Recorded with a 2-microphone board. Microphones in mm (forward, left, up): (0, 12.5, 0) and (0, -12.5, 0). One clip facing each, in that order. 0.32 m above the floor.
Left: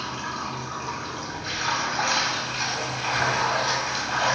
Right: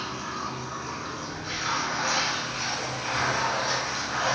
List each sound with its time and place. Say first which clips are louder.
0.0 s running water: left 2 dB; 40° left (ahead or behind), 0.9 m